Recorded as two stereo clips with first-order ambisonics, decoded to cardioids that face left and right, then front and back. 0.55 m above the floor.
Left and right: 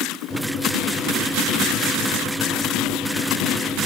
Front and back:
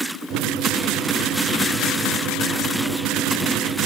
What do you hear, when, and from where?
0.3 s a microwave: 160° left, 0.5 m